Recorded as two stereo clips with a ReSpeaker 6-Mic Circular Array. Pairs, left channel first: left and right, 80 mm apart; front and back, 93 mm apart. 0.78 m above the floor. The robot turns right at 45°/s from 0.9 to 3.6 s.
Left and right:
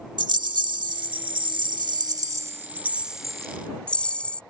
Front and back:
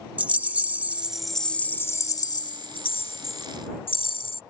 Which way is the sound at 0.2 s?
105° right.